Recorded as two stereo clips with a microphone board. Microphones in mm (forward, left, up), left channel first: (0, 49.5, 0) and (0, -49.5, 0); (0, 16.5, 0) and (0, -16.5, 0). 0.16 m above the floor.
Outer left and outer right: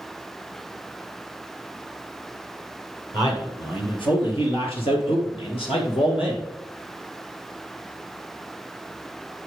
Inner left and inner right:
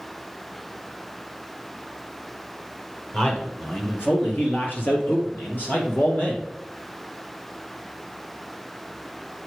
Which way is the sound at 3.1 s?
40° left (ahead or behind).